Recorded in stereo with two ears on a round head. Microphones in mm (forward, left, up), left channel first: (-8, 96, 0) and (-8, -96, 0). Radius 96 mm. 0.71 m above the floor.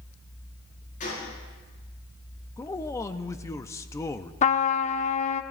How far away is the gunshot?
About 8.5 m.